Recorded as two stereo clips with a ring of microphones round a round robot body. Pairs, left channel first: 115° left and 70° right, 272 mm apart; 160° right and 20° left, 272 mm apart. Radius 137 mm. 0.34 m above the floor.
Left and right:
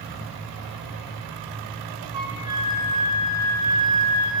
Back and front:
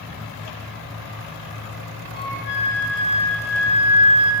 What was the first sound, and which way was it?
A flute, 145° right.